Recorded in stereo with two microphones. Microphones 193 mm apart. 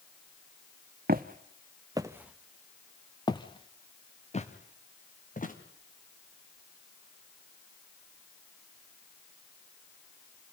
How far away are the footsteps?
About 1.0 m.